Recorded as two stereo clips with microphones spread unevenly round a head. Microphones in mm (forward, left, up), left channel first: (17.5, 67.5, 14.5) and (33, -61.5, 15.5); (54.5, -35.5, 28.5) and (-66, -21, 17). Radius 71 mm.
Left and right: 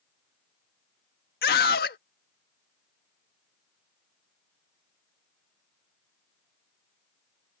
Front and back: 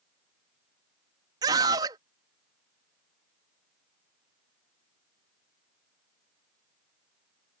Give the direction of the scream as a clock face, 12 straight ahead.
8 o'clock.